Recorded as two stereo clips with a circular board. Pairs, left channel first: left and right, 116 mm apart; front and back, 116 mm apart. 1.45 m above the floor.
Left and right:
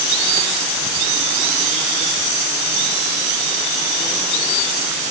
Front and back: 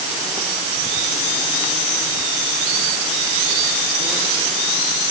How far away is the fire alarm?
I don't hear a fire alarm.